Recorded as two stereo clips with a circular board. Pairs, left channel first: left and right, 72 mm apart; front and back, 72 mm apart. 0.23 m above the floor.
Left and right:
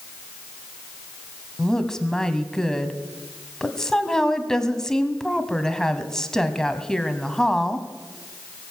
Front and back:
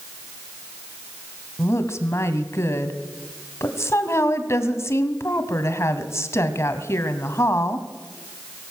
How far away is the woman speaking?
About 1.3 m.